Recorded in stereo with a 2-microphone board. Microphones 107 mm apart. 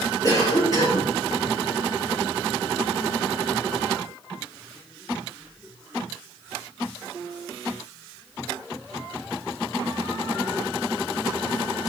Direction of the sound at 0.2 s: 35° left (ahead or behind).